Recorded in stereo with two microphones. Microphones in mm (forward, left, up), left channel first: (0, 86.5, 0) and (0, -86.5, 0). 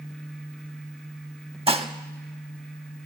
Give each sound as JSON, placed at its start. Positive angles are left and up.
{"t": 1.7, "sound": "dishes clattering", "side_deg": -35, "distance_m": 0.7}